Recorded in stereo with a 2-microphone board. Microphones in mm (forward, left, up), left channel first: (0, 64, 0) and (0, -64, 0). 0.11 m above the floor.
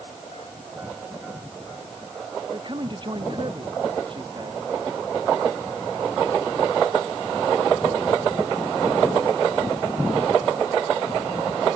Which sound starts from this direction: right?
A man speaking, at 2.5 s.